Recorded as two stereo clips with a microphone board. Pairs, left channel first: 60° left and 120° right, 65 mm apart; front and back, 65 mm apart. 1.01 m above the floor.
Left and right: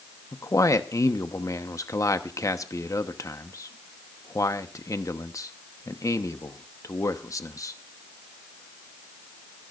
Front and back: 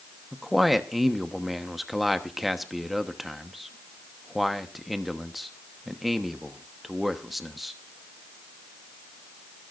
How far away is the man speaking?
About 1.0 m.